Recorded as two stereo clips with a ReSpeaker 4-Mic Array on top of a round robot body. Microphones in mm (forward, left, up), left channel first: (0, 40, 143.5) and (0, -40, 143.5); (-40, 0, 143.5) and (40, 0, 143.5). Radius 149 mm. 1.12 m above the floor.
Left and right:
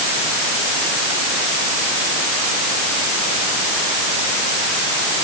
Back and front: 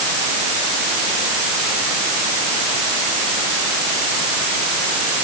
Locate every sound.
Only background noise.